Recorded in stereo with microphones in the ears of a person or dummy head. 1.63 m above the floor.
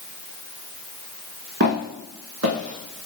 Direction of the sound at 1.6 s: 45° right (ahead or behind).